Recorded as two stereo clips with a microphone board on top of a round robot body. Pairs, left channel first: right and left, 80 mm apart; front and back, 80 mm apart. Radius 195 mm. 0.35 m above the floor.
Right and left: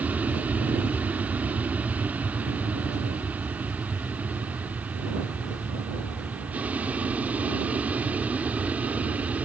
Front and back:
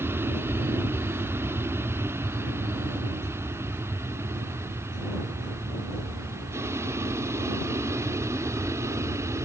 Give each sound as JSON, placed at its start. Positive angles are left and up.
{"t": 0.0, "sound": "an aircraft", "azimuth_deg": 145}